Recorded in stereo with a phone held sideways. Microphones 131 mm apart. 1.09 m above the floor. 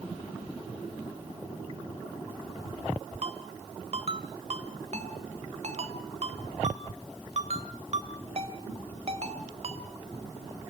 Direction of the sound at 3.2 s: 55° right (ahead or behind).